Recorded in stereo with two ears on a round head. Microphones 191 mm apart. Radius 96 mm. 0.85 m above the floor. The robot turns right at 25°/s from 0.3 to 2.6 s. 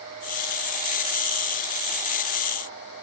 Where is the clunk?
I don't hear a clunk.